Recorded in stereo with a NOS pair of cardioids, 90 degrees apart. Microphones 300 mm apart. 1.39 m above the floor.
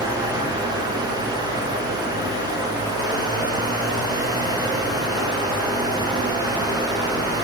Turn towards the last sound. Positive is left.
turn(degrees=-15)